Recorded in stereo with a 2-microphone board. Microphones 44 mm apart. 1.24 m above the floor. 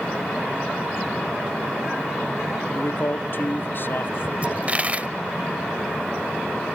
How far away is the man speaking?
About 0.8 m.